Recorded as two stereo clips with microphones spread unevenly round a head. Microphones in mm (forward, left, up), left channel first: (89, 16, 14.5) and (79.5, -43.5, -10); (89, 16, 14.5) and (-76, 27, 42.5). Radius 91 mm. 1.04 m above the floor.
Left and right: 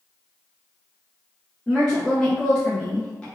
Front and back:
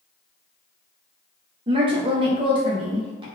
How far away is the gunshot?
No gunshot in this recording.